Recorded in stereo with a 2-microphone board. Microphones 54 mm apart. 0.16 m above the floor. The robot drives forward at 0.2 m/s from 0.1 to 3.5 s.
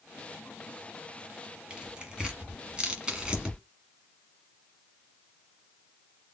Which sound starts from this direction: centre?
Tearing paper, at 1.7 s.